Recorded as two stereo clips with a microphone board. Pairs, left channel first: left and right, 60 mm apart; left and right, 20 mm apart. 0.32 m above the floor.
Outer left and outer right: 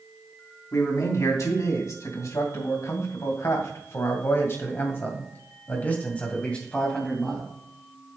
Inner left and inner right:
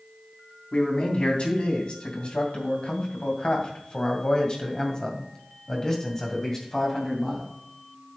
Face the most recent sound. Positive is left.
turn(degrees=10)  # may be behind; listen again after turning